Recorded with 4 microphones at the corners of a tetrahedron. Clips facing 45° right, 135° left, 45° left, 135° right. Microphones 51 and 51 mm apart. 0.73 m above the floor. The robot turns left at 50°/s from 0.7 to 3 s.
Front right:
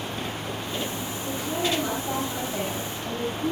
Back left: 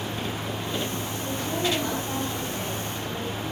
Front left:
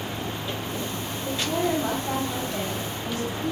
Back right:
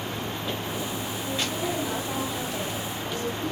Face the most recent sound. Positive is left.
turn(degrees=-15)